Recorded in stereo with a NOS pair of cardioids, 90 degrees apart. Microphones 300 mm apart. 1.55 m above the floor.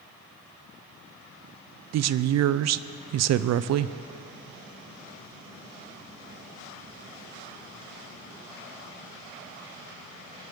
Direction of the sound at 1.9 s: 55° right.